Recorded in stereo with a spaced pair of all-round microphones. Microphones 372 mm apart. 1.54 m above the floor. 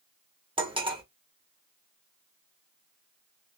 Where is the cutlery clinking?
15° right (ahead or behind), 0.6 m.